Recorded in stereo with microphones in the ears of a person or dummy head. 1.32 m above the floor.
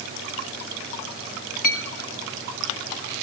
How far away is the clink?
About 1.6 m.